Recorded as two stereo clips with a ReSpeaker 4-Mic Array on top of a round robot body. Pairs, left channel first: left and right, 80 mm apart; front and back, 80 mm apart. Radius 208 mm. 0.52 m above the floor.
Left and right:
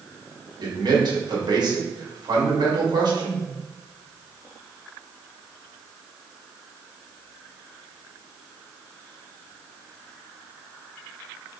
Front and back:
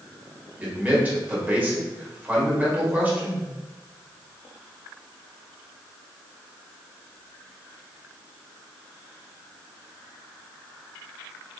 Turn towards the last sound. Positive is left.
turn(degrees=-110)